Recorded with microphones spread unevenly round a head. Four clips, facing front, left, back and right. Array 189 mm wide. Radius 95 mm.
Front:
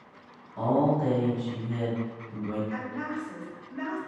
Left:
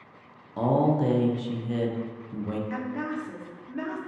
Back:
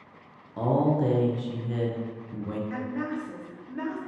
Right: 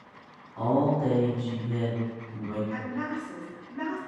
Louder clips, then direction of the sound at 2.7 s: Left 1 dB, back 2 dB; 120° left.